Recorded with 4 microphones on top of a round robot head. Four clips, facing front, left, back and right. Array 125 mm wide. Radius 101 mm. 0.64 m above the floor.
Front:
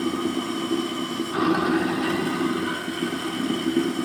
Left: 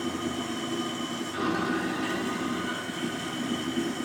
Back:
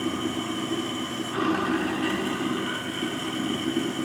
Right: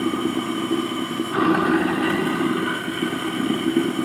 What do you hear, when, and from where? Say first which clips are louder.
0.0 s running water: right 9 dB, front 3 dB; 70° right, 1.1 m